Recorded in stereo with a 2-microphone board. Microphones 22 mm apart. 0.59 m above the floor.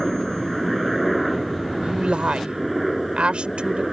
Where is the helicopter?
Centre (ahead or behind).